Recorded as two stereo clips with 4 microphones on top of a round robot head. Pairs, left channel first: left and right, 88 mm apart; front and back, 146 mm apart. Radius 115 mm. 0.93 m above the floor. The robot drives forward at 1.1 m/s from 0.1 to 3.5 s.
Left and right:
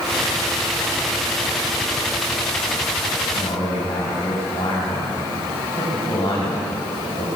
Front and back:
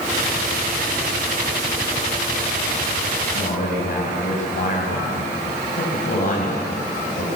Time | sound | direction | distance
3.3 | a man speaking | 30° left | 6 m